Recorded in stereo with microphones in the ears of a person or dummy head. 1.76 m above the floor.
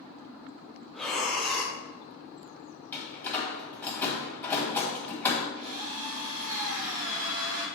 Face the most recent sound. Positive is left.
turn(degrees=-70)  # may be behind; listen again after turning